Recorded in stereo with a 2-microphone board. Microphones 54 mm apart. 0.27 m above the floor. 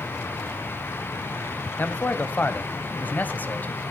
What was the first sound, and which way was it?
A man speaking, 35° left (ahead or behind).